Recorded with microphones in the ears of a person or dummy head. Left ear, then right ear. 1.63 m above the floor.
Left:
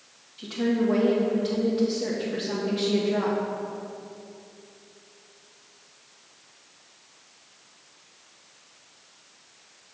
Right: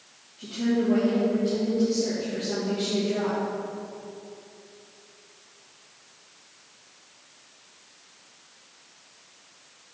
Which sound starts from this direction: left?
A woman speaking, at 0.4 s.